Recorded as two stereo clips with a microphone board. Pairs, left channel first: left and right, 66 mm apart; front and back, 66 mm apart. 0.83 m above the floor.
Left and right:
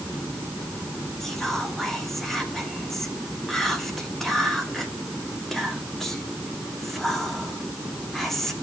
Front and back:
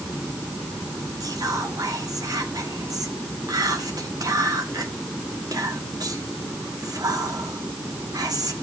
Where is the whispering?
175° left, 1.8 m.